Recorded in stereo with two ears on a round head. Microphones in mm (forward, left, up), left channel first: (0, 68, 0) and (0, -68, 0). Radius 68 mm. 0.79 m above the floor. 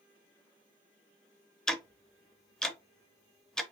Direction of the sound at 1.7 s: 5° left (ahead or behind).